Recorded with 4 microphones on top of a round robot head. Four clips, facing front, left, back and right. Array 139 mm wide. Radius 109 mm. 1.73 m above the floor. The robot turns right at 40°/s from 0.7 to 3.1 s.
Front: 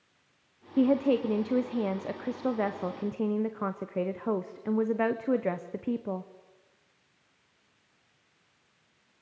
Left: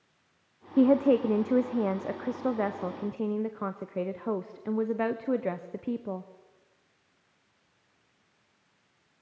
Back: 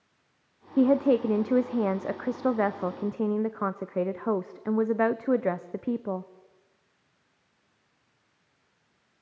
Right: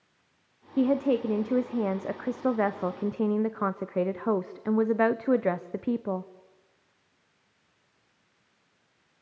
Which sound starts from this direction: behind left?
A woman speaking, at 0.8 s.